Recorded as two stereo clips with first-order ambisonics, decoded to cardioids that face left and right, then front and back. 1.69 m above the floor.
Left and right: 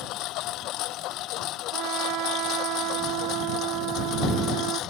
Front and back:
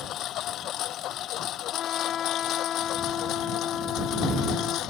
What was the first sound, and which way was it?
A lawn mower, 50° left.